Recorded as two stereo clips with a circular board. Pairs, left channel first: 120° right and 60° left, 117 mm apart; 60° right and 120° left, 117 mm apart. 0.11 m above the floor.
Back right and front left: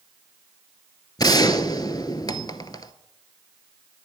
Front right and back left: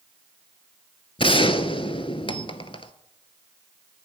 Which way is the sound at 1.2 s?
75° right.